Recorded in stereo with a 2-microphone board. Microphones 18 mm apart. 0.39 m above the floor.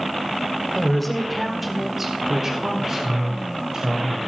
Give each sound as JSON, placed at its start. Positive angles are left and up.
{"t": 0.8, "sound": "a woman speaking", "side_deg": 15, "distance_m": 1.5}